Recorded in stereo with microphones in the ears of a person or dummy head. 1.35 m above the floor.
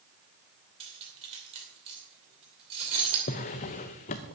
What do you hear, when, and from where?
0.8 s cutlery clinking: 30° right (ahead or behind), 2.5 m
3.3 s a drawer: 25° left (ahead or behind), 0.5 m